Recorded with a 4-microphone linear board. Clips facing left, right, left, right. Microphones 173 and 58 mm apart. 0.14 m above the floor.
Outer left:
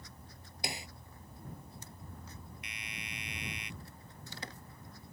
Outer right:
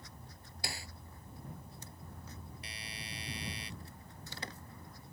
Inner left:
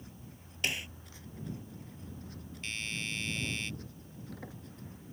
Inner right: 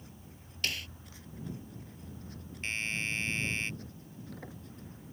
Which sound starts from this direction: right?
A doorbell, at 2.6 s.